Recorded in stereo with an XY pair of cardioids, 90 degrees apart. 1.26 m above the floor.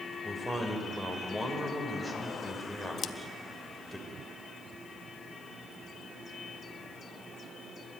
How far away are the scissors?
About 0.9 m.